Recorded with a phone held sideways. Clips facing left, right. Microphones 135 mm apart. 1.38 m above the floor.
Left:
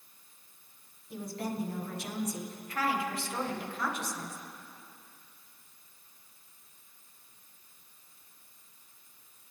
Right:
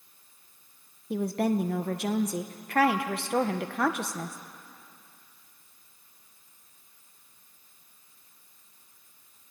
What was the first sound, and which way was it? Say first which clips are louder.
A woman speaking: right 10 dB; 70° right (ahead or behind).